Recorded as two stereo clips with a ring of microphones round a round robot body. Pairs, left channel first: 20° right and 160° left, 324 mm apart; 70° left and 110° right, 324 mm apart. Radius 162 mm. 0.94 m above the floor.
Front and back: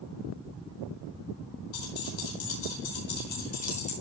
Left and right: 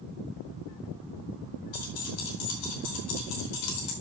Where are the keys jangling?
15° left, 4.5 m; by 3.9 s 50° left, 4.5 m.